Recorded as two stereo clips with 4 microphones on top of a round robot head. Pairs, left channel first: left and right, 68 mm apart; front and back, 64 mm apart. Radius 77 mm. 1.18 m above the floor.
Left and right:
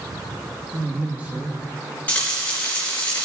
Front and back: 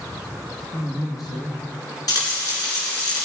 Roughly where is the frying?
Ahead.